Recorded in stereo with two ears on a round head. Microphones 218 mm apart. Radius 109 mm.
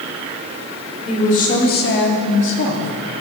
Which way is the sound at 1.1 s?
25° left (ahead or behind).